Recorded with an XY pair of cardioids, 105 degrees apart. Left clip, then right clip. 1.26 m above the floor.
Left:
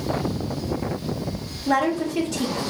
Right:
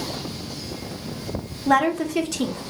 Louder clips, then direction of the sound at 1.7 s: Right 2 dB; 45° right.